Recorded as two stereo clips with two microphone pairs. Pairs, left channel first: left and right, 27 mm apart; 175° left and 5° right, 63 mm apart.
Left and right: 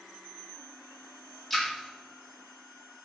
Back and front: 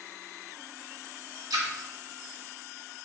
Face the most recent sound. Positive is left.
turn(degrees=10)